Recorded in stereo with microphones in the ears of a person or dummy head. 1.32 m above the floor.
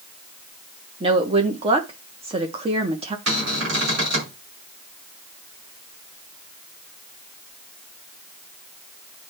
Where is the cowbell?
I don't hear a cowbell.